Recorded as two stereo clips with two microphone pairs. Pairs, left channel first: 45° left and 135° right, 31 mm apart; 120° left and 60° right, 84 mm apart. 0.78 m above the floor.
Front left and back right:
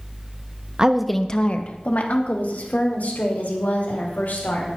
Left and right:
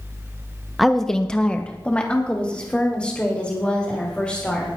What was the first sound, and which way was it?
A woman speaking, 150° right.